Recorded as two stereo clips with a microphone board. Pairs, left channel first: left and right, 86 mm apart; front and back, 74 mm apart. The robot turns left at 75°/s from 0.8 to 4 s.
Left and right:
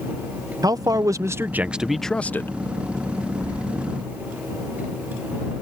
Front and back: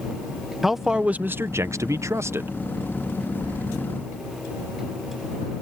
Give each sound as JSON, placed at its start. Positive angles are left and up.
{"t": 0.6, "sound": "a man speaking", "azimuth_deg": -95}
{"t": 3.4, "sound": "keys jangling", "azimuth_deg": 145}